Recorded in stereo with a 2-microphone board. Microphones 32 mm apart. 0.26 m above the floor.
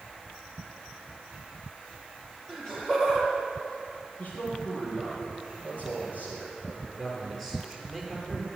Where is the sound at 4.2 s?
50° left (ahead or behind), 6 m.